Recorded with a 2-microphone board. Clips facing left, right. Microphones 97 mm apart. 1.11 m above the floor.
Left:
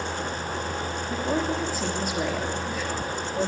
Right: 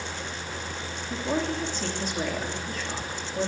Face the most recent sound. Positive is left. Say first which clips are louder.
# left 1 dB
turn(degrees=5)  # may be behind; listen again after turning